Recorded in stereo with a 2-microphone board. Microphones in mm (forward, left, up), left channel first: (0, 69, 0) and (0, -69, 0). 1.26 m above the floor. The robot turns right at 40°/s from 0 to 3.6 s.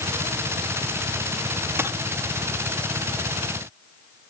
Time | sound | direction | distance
1.8 | a dropped coin | 15° right (ahead or behind) | 0.5 m